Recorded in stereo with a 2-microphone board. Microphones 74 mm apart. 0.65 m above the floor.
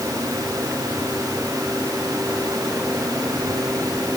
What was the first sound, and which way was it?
Only background noise.